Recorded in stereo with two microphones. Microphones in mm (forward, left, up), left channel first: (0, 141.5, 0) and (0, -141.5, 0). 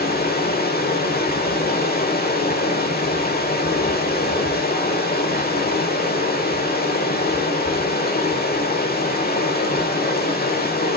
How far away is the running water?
About 1.4 m.